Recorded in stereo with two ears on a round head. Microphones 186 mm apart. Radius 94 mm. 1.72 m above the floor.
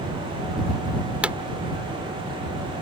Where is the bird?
No bird in this recording.